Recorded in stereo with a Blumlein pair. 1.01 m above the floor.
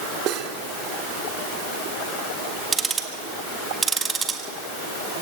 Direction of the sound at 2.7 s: 15° right.